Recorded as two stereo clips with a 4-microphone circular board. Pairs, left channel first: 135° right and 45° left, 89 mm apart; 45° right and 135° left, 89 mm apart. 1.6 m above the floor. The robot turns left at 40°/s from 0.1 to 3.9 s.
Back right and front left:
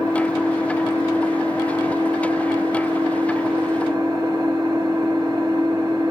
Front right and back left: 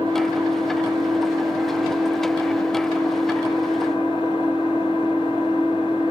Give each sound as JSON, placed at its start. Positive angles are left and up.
{"t": 0.0, "sound": "an engine running", "azimuth_deg": 135, "distance_m": 2.0}